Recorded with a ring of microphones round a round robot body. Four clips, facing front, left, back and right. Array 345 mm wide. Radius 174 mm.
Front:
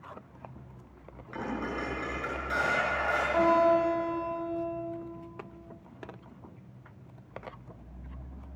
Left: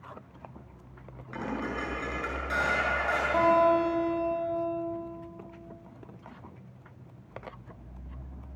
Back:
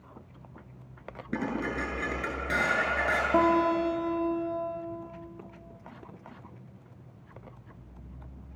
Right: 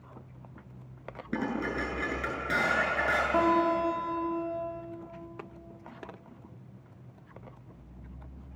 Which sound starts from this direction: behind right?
Dishes clattering, at 1.3 s.